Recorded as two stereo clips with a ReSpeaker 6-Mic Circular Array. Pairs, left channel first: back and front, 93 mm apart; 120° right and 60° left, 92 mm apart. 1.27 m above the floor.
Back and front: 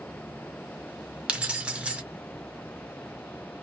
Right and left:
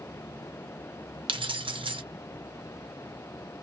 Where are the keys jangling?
80° left, 0.6 m.